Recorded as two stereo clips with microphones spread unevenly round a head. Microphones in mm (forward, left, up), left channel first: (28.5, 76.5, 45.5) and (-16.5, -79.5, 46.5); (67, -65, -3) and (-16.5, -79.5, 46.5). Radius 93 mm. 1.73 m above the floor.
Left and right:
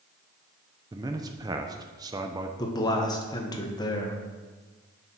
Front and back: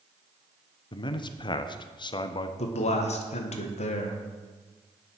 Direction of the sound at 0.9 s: 45° right.